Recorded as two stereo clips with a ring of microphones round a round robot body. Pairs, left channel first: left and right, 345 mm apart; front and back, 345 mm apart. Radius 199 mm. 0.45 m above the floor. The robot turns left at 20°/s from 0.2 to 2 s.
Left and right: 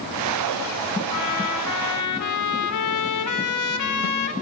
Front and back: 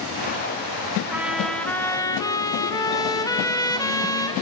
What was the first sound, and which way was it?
A trumpet, 95° left.